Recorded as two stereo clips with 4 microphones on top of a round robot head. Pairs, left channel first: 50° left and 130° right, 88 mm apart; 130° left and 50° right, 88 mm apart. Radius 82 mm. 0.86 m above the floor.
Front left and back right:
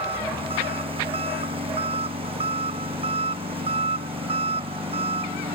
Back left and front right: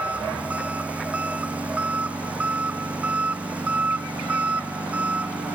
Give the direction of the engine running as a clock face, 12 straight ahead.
4 o'clock.